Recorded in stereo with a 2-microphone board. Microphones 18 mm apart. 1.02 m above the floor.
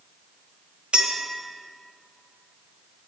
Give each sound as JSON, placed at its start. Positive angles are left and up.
{"t": 0.9, "sound": "a clink", "side_deg": -70, "distance_m": 1.1}